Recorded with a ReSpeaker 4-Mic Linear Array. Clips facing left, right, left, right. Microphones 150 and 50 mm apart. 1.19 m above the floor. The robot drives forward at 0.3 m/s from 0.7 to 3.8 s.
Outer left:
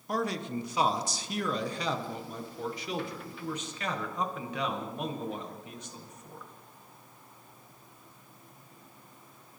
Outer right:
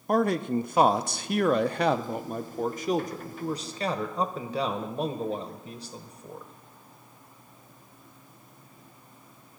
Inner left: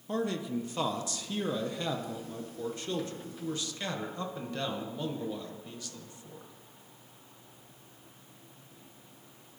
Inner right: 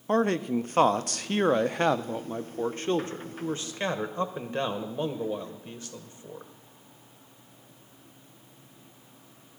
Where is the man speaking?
50° right (ahead or behind), 0.6 m; by 6.5 s 35° right (ahead or behind), 0.9 m.